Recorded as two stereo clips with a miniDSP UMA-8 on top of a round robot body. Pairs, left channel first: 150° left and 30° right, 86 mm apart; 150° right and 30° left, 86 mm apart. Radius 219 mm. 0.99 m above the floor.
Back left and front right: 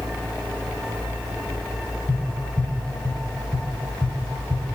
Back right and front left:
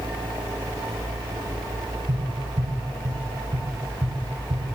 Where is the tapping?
75° left, 5.5 m.